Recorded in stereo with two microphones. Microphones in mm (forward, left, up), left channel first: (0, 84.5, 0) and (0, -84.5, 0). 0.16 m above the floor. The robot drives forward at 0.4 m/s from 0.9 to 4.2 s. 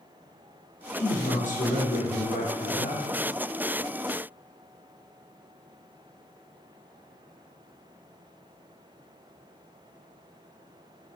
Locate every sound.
0.9 s a man speaking: 45° left (ahead or behind), 3 m; by 3.1 s 50° left (ahead or behind), 2.5 m